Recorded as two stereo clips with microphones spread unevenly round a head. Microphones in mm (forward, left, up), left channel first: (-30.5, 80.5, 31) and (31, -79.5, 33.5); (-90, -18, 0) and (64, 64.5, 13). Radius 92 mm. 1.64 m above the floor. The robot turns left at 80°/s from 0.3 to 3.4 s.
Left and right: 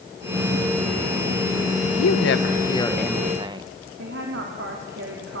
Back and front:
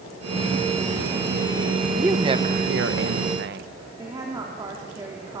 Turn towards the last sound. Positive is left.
turn(degrees=-45)